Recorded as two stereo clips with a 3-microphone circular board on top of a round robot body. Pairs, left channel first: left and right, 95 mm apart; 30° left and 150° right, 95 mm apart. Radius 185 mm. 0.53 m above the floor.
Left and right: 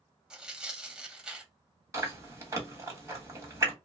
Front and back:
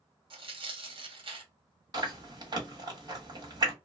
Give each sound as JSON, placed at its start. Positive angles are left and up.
{"t": 0.3, "sound": "tearing paper", "azimuth_deg": -170, "distance_m": 1.1}
{"t": 1.9, "sound": "chewing", "azimuth_deg": -135, "distance_m": 1.6}